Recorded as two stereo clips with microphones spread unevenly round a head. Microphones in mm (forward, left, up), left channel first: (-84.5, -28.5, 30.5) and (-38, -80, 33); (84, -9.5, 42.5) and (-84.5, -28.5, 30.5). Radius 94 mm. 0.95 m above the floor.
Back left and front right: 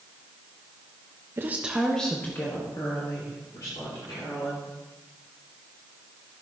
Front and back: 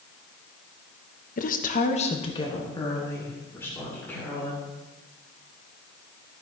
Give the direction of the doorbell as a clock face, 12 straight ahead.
No doorbell in this recording.